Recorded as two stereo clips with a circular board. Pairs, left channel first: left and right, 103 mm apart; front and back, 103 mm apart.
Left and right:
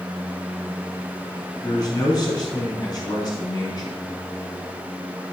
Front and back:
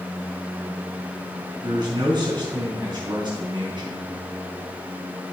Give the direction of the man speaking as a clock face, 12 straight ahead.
7 o'clock.